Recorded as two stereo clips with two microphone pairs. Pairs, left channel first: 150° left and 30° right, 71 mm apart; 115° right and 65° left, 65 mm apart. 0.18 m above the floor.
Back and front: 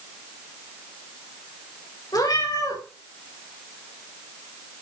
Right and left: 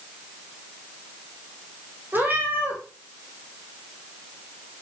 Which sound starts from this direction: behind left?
A cat meowing, at 2.1 s.